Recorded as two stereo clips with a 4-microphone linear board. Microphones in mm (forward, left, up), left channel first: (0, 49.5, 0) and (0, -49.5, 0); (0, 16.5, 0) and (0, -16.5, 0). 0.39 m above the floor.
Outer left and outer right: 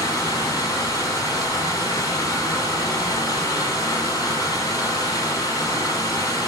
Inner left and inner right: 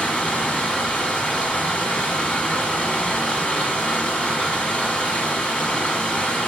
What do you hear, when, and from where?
0.0 s running water: 40° left (ahead or behind), 1.4 m